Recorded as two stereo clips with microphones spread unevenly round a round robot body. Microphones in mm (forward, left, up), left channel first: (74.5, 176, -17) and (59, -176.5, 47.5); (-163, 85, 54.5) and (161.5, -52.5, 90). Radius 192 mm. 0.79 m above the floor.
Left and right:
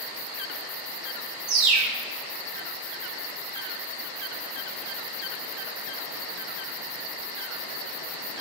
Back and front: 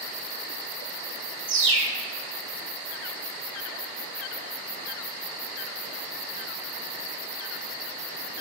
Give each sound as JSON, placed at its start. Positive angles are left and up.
{"t": 1.5, "sound": "a bird", "azimuth_deg": -80, "distance_m": 1.8}